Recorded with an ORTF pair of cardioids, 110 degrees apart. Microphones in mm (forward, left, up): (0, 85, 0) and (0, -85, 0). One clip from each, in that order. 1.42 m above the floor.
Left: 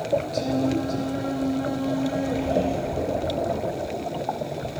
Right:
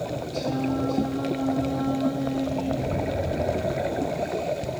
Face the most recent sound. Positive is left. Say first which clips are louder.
# left 3 dB
turn(degrees=35)